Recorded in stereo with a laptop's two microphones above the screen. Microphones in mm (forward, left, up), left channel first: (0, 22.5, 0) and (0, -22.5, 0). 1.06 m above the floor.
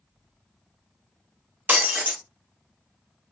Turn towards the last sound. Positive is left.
turn(degrees=-45)  # may be behind; listen again after turning